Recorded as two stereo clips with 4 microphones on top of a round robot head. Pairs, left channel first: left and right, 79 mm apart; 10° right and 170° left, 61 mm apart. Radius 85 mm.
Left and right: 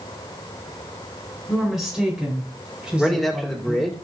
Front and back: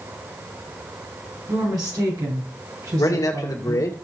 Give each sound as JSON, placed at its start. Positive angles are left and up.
{"t": 1.5, "sound": "a woman speaking", "azimuth_deg": -175, "distance_m": 5.5}
{"t": 3.0, "sound": "a man speaking", "azimuth_deg": 0, "distance_m": 1.9}